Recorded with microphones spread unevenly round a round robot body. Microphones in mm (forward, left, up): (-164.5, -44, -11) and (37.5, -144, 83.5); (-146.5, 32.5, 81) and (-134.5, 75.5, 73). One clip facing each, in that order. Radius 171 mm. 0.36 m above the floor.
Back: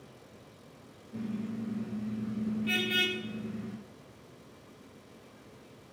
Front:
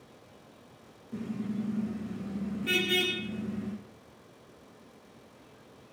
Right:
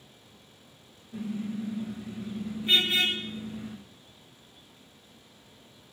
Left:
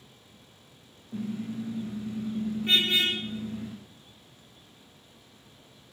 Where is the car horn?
25° left, 9.5 m.